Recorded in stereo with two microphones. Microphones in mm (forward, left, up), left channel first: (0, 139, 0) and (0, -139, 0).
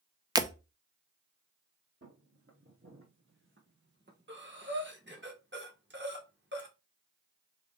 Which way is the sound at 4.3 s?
40° right (ahead or behind).